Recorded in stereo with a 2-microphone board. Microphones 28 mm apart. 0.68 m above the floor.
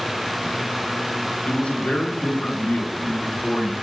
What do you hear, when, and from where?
1.5 s a man speaking: 55° left (ahead or behind), 1.9 m